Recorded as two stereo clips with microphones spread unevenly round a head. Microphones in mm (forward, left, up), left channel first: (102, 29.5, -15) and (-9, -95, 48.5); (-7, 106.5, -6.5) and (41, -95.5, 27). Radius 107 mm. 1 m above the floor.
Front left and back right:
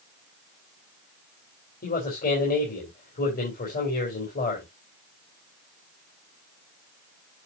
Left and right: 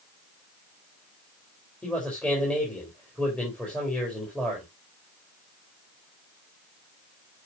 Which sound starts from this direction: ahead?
A man speaking, at 1.8 s.